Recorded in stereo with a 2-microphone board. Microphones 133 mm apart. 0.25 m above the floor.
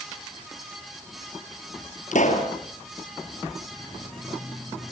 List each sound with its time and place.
2.1 s a pop: 70° left (ahead or behind), 4.5 m